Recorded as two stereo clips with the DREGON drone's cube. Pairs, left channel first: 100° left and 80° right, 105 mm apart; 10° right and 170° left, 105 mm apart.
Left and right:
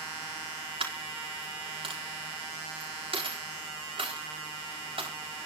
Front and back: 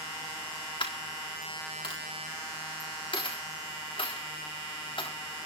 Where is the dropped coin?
45° right, 4 m.